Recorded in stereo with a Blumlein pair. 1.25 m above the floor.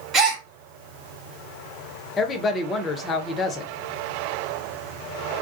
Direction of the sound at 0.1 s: 25° right.